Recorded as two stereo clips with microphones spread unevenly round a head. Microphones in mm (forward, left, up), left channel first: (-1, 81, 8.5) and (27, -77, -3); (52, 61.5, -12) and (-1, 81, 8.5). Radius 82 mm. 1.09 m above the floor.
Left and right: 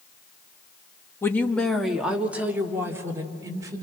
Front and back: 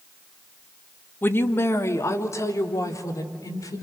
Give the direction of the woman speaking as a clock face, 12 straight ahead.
11 o'clock.